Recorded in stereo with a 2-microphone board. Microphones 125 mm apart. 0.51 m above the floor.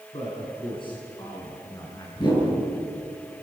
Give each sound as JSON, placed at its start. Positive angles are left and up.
{"t": 0.1, "sound": "a man speaking", "side_deg": 45, "distance_m": 6.0}
{"t": 2.2, "sound": "a whoosh", "side_deg": 35, "distance_m": 7.0}